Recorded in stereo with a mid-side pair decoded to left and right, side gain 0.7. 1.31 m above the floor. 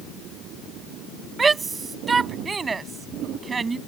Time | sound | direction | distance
1.4 | a shout | 20° right | ?